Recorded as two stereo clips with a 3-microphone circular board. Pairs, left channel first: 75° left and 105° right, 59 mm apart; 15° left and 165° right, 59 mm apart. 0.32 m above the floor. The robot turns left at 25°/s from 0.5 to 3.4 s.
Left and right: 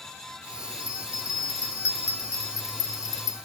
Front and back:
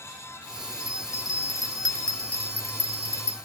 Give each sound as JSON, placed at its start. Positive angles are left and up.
{"t": 0.8, "sound": "a bell", "azimuth_deg": 125, "distance_m": 1.0}